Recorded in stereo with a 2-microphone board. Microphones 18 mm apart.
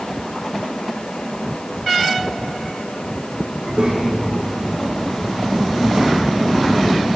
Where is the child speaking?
60° right (ahead or behind), 7.5 m.